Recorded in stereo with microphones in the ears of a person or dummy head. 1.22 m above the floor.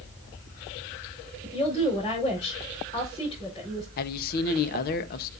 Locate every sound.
1.4 s a woman speaking: 25° left (ahead or behind), 5 m
4.0 s a man speaking: 50° left (ahead or behind), 1.2 m